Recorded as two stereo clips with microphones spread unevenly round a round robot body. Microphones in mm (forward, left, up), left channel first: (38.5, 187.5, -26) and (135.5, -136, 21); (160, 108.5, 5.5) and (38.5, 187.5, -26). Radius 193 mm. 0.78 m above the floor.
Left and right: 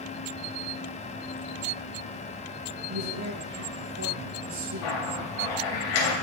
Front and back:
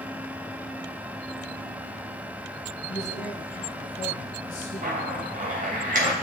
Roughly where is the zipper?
Behind left.